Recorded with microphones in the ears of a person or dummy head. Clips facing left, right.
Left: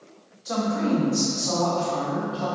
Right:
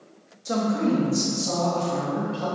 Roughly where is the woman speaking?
Right.